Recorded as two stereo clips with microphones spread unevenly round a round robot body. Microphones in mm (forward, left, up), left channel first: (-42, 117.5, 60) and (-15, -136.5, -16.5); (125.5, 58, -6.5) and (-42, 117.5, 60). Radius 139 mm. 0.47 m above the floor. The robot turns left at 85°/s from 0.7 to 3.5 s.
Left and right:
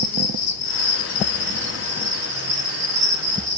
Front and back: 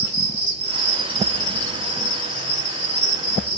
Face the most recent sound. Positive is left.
turn(degrees=-140)